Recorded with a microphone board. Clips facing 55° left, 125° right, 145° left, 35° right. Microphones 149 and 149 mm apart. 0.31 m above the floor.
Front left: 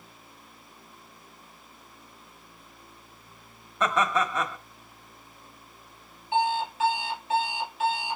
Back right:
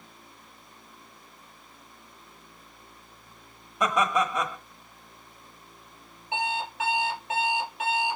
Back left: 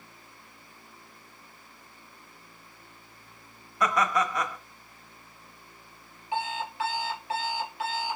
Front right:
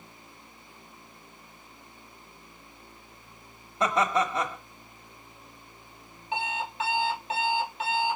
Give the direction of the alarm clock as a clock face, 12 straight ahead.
3 o'clock.